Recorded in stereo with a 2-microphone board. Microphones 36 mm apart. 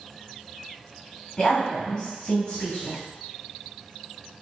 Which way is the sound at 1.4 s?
25° left (ahead or behind).